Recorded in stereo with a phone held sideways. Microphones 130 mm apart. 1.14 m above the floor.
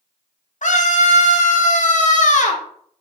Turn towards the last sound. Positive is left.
turn(degrees=70)  # may be behind; listen again after turning